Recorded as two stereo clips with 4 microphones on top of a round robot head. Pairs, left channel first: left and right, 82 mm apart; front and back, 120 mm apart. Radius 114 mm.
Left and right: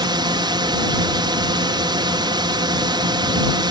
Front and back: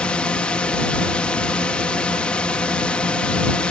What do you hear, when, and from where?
0.0 s a drone: 80° right